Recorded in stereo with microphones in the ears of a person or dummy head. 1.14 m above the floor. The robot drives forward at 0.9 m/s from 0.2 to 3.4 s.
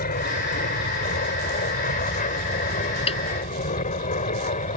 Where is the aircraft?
40° left (ahead or behind); by 4.8 s 35° left (ahead or behind).